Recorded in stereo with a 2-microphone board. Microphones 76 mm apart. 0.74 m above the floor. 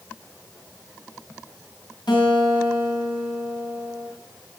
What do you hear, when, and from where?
2.1 s a guitar: 80° left, 7 m